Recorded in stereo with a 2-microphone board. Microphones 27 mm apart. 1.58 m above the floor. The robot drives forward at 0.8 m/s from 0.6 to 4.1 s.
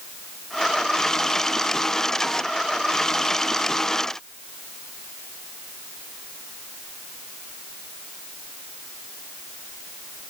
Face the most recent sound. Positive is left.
No sound to turn to.